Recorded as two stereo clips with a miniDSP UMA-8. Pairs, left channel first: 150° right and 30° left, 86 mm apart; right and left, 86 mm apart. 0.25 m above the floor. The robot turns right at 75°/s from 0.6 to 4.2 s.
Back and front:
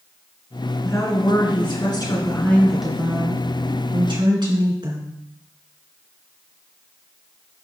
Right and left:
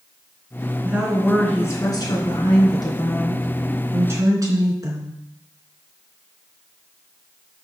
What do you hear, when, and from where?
0.8 s a woman speaking: 155° left, 3 m; by 5.2 s 45° left, 3 m